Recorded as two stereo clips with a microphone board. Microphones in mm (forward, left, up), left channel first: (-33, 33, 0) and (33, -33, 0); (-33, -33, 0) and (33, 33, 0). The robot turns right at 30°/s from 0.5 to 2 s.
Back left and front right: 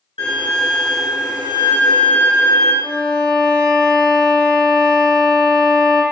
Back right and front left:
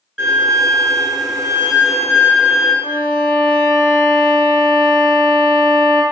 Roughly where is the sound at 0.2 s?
Behind left.